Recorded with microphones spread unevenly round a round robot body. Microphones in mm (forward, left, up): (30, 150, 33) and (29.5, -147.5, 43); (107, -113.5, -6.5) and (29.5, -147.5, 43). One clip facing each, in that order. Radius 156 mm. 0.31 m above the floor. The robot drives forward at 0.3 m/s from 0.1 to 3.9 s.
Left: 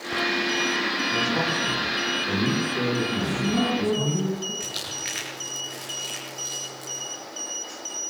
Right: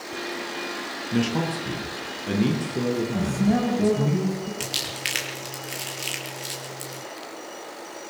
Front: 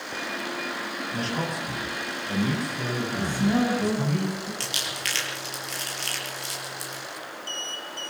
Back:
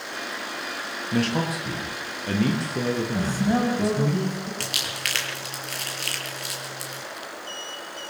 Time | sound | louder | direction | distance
1.1 | a man speaking | right 7 dB, back 7 dB | 150° right | 7 m
3.1 | a man speaking | right 2 dB, front 2 dB | 95° right | 9 m
4.6 | crumpling | right 3 dB, back 1 dB | 135° right | 9 m